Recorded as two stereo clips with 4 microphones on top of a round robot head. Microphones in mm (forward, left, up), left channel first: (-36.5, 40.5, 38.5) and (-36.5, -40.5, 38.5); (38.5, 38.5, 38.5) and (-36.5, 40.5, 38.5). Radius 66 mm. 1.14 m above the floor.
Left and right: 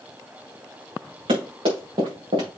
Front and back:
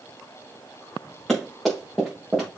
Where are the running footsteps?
90° right, 6 m; by 2.5 s 100° right, 5 m.